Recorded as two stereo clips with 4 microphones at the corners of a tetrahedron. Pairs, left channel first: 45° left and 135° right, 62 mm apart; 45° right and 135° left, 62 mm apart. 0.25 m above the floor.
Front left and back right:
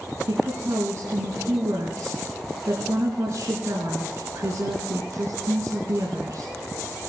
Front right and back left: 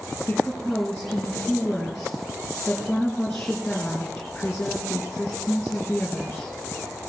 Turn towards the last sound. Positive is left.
turn(degrees=-125)